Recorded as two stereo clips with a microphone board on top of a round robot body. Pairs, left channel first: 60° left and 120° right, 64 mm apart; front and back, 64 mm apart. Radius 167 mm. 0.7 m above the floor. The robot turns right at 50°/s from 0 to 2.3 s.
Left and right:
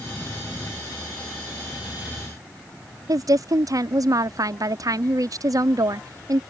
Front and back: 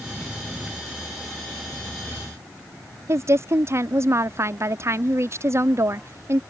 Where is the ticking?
I don't hear ticking.